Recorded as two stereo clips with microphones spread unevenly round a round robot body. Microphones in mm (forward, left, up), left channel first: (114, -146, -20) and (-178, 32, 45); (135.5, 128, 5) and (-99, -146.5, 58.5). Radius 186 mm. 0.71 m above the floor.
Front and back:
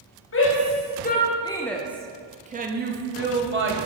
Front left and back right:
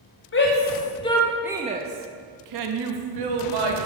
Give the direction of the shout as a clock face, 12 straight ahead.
12 o'clock.